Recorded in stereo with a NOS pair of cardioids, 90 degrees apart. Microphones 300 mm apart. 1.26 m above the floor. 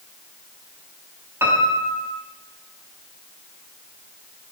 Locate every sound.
1.4 s a piano: 10° right, 4.5 m